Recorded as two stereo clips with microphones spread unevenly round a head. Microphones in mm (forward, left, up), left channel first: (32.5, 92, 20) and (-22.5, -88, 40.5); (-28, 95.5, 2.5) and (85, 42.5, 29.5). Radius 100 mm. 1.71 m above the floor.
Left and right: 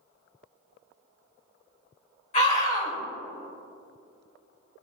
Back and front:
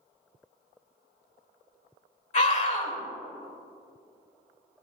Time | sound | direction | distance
2.3 | a scream | 130° left | 3 m